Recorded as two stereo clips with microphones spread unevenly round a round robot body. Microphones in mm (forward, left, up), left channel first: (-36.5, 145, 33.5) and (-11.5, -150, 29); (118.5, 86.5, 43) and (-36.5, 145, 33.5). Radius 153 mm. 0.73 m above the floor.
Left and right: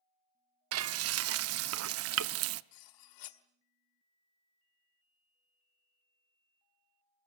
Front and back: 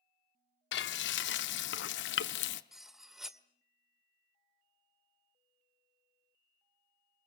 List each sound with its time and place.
0.7 s frying: 40° right, 0.6 m
2.7 s cutlery clinking: 70° left, 1.6 m